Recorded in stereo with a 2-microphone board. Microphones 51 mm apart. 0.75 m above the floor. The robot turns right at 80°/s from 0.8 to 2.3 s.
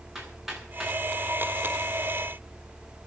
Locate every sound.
0.1 s hammering: 5° right (ahead or behind), 8.5 m; by 1.0 s 10° left (ahead or behind), 8.5 m